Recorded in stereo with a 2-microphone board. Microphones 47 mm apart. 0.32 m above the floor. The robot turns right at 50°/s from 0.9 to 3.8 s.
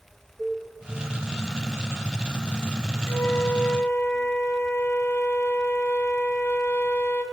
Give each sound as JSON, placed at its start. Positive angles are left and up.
{"t": 0.4, "sound": "a cowbell", "side_deg": -10, "distance_m": 3.5}
{"t": 3.1, "sound": "a flute", "azimuth_deg": 95, "distance_m": 0.6}